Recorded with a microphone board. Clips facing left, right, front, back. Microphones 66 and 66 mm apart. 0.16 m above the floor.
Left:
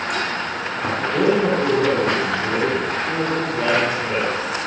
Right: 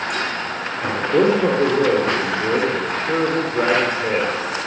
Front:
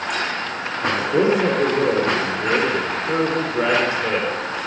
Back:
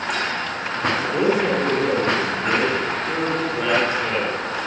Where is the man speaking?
60° right, 4 m.